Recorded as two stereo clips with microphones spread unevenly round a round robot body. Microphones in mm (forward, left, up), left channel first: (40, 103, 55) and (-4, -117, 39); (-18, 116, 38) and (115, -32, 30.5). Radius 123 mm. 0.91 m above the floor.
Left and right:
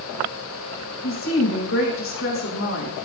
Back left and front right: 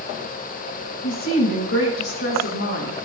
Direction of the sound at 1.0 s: 115° left.